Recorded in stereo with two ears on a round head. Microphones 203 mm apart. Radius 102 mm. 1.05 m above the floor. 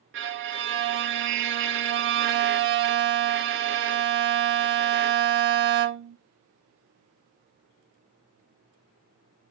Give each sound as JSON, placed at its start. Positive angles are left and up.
{"t": 0.1, "sound": "a violin", "side_deg": -55, "distance_m": 0.5}